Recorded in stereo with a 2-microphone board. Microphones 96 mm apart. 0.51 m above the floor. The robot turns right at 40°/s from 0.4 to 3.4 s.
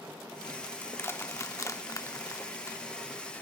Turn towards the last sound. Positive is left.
turn(degrees=20)  # may be behind; listen again after turning